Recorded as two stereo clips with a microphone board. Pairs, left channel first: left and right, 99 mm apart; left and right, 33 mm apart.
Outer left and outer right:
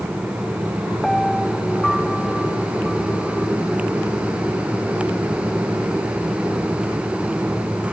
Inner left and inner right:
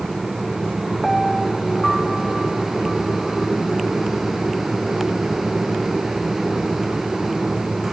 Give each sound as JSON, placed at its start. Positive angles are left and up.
{"t": 1.0, "sound": "a piano", "side_deg": 5}